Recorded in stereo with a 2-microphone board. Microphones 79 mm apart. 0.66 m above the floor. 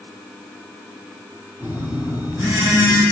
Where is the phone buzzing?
35° right (ahead or behind), 1.7 m.